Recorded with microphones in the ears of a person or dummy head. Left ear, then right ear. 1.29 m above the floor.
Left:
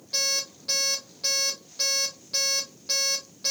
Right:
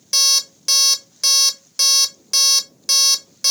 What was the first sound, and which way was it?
An alarm clock, 55° right (ahead or behind).